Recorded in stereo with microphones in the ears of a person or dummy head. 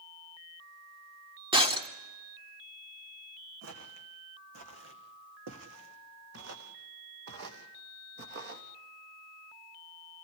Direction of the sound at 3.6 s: 70° right (ahead or behind).